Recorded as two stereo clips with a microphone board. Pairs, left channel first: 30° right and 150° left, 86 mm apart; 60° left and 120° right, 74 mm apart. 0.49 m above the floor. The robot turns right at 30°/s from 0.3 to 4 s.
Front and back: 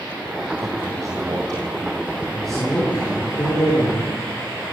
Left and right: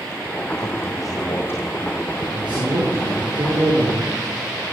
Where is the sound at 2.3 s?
120° right, 7 m; by 4.1 s 70° right, 7 m.